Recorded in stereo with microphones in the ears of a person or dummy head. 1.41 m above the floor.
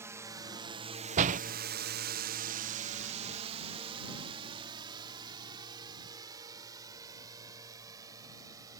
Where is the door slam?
45° right (ahead or behind).